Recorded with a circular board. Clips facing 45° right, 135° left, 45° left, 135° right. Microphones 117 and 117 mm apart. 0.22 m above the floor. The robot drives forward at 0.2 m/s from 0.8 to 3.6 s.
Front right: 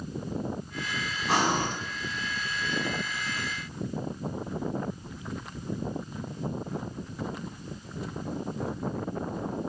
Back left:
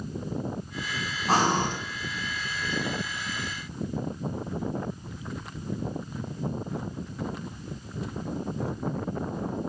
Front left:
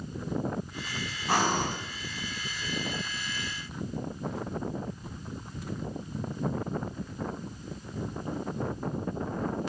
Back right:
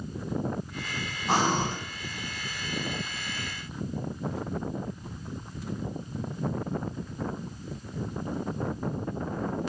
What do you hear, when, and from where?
1.3 s breathing: 170° left, 0.6 m